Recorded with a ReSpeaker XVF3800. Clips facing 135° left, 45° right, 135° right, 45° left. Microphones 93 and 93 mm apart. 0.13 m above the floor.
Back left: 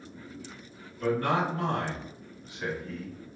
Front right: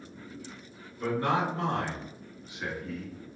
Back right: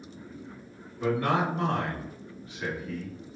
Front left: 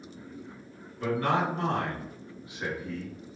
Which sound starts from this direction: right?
A man speaking, at 1.0 s.